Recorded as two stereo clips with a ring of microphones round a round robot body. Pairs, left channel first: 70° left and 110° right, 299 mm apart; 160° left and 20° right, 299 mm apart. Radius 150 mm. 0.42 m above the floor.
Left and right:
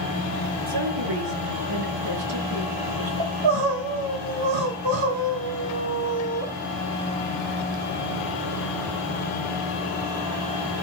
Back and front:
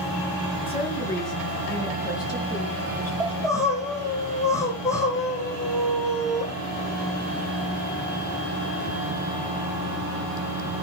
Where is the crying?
120° right, 4.5 m.